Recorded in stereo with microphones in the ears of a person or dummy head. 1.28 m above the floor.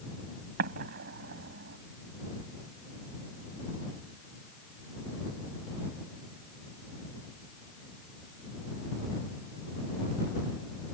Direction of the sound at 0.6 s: 60° right (ahead or behind).